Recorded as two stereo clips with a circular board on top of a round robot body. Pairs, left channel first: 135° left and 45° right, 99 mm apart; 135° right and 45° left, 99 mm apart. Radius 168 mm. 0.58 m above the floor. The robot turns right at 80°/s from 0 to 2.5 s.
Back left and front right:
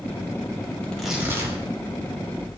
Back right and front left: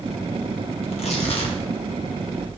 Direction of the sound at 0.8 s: 150° right.